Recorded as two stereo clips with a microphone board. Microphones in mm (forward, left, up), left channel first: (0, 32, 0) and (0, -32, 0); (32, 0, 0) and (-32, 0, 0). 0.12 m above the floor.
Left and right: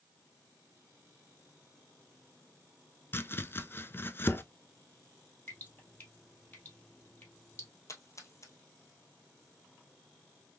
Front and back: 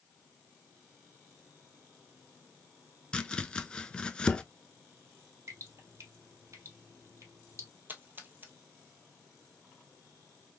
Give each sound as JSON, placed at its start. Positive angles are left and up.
{"t": 3.1, "sound": "chopping", "azimuth_deg": 70, "distance_m": 0.6}
{"t": 5.5, "sound": "dripping", "azimuth_deg": 145, "distance_m": 2.0}
{"t": 7.9, "sound": "a splash", "azimuth_deg": 125, "distance_m": 1.3}